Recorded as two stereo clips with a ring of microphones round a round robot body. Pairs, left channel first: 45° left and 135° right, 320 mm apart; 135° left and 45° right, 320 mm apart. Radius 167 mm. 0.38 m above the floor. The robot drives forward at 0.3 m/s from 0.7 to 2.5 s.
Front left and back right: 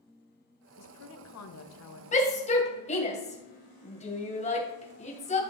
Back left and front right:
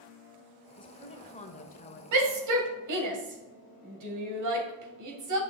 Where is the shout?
20° right, 2.5 m; by 5.4 s 25° right, 2.5 m.